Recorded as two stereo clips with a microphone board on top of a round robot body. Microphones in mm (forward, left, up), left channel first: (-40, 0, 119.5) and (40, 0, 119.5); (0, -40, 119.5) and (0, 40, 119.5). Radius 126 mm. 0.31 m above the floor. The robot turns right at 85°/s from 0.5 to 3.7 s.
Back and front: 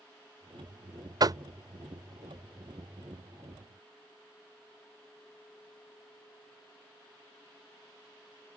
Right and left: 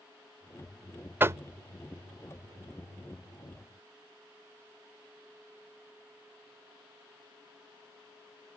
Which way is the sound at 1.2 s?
25° left.